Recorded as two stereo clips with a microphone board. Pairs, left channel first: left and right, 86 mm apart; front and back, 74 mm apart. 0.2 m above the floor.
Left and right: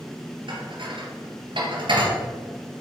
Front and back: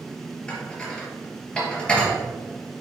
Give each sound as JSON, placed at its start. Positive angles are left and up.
{"t": 0.5, "sound": "dishes clattering", "azimuth_deg": -75, "distance_m": 3.0}